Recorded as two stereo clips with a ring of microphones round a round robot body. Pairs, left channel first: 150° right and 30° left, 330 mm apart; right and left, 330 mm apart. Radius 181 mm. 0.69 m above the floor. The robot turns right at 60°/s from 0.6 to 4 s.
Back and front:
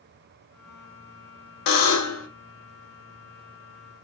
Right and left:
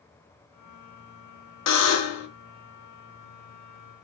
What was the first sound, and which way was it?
A buzzer, 130° right.